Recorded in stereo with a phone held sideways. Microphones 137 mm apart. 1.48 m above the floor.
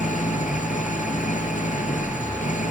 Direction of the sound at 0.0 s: 90° left.